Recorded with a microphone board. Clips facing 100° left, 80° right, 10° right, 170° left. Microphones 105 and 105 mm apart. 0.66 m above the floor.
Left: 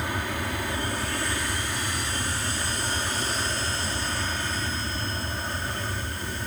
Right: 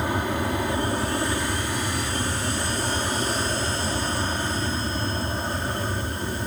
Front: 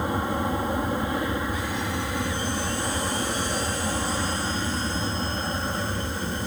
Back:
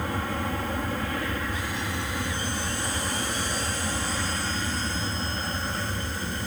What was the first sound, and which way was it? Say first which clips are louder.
An aircraft: right 5 dB, front 4 dB; 55° right.